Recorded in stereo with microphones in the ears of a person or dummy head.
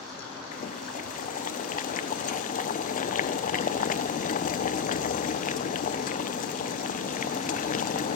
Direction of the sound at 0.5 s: 35° left (ahead or behind).